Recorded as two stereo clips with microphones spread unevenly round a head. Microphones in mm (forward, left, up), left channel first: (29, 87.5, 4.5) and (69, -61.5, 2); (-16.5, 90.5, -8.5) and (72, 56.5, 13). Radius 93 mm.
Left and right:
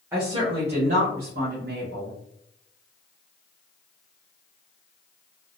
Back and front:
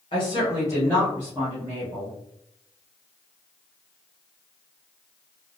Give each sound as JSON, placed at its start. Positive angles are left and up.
{"t": 0.1, "sound": "a woman speaking", "azimuth_deg": -155, "distance_m": 0.9}